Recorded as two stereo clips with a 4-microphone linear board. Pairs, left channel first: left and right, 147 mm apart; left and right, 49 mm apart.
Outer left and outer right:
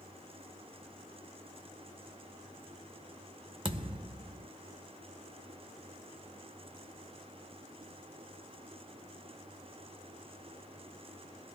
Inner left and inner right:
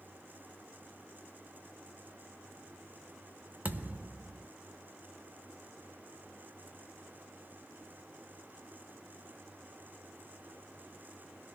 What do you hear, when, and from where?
3.6 s a thud: 40° right (ahead or behind), 0.6 m